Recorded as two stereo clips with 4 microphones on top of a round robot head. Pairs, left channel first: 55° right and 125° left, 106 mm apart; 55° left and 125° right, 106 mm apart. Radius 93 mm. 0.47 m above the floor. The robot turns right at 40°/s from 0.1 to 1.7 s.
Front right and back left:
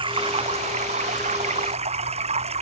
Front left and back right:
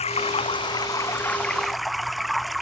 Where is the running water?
85° left; by 2.6 s 145° left.